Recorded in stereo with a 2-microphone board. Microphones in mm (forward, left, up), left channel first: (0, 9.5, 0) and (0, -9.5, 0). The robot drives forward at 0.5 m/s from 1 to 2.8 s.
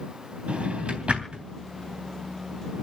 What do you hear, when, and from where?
0.5 s a drawer: 80° right, 3 m; by 1.4 s 75° right (ahead or behind), 3 m